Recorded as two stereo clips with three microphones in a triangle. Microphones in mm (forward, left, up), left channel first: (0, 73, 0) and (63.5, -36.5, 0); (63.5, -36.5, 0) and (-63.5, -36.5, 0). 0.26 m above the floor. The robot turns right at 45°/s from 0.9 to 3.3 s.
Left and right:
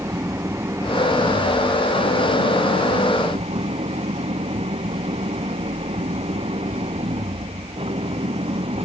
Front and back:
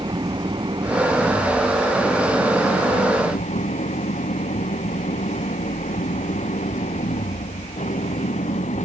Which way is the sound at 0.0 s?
125° right.